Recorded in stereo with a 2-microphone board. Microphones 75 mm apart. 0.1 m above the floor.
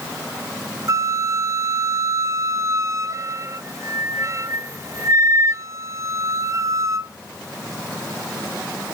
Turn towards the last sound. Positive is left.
turn(degrees=-45)  # may be behind; listen again after turning